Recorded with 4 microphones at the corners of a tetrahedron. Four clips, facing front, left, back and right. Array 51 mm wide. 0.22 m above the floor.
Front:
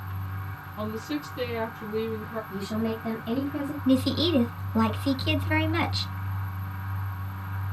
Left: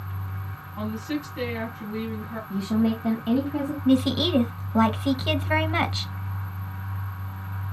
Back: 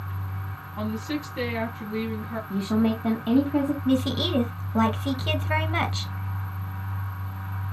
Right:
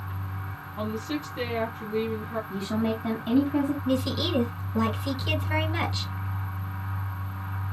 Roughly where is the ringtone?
I don't hear a ringtone.